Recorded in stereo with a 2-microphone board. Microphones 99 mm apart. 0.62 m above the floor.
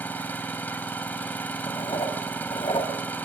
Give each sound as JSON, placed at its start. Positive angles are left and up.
{"t": 0.0, "sound": "an engine running", "side_deg": 20, "distance_m": 2.0}
{"t": 1.7, "sound": "writing", "side_deg": 60, "distance_m": 3.0}